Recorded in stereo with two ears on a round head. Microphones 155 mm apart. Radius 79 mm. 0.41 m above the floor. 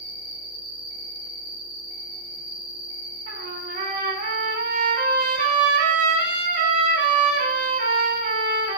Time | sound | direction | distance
0.0 | an insect | 45° left (ahead or behind) | 2.5 m
3.3 | a trumpet | 55° right (ahead or behind) | 0.6 m